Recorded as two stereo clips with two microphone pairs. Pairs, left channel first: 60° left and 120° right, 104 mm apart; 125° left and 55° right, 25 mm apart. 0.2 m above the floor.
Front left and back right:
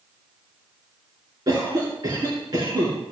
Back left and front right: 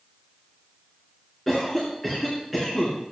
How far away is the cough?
About 3 m.